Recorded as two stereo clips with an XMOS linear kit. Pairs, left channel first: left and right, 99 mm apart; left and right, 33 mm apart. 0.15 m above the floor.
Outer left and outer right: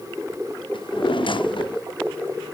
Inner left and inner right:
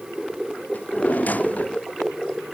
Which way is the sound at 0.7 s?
60° left (ahead or behind).